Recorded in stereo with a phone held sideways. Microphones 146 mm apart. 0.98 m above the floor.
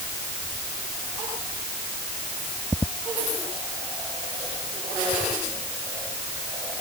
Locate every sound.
Only background noise.